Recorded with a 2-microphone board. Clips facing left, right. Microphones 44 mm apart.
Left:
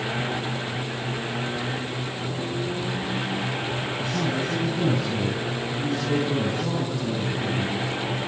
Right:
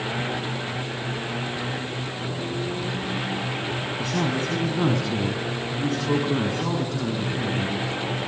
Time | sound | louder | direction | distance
4.0 | a man speaking | right 2 dB | 70° right (ahead or behind) | 4.5 m